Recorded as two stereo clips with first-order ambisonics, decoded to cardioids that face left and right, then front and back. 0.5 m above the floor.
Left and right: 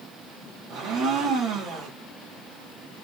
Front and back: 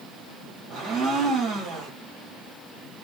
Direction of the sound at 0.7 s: 140° right.